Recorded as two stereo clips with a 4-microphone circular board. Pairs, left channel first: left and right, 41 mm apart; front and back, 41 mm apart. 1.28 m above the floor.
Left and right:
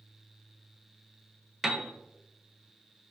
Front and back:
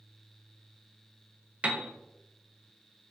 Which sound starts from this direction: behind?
A piano, at 1.6 s.